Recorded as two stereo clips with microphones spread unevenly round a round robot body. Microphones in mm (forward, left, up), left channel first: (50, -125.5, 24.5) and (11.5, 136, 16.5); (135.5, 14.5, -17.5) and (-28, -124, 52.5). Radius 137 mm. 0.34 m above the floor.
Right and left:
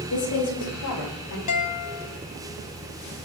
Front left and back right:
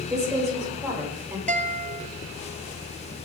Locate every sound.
0.1 s a woman speaking: 50° right, 9.5 m; by 1.4 s 60° right, 9 m
1.5 s a guitar: 75° right, 2.5 m